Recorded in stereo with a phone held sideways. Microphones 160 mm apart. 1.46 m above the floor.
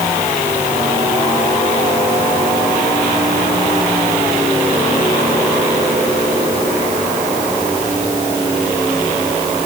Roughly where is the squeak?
No squeak in this recording.